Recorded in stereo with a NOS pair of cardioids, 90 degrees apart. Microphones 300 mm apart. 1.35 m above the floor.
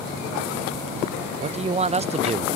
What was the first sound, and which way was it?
A man speaking, 20° right.